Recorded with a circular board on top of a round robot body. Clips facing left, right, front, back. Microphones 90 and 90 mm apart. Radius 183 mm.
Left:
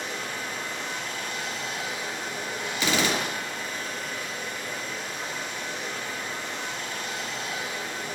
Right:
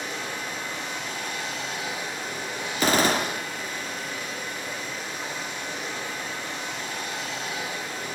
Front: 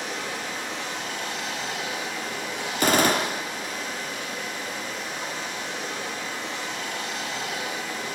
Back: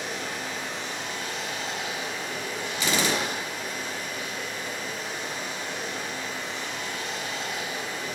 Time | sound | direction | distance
0.0 | running water | 10° right | 8.5 m
2.8 | a gunshot | 40° right | 1.6 m